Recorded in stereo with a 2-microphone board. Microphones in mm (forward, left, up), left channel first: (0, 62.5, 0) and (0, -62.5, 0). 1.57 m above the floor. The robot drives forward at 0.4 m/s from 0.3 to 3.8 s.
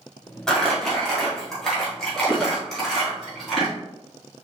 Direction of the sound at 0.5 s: 5° left (ahead or behind).